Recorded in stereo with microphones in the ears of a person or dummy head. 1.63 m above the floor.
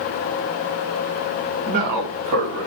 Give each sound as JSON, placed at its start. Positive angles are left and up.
{"t": 1.7, "sound": "a man speaking", "side_deg": -35, "distance_m": 2.0}